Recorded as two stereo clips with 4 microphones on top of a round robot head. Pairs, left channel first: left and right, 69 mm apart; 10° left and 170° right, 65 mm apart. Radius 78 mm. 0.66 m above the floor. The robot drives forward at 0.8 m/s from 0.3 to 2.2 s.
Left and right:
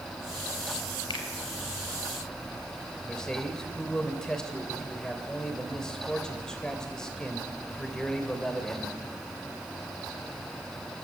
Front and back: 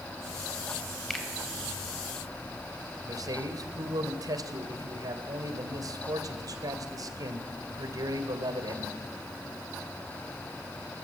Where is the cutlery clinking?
No cutlery clinking in this recording.